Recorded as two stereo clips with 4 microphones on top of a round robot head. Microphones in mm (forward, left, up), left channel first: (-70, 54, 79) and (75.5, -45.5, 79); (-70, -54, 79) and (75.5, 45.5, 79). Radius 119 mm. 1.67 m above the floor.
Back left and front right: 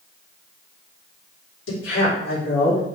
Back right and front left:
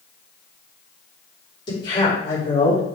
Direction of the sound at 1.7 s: 150° left.